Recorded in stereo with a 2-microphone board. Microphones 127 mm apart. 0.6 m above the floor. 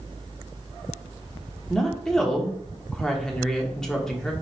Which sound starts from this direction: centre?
A woman speaking, at 1.7 s.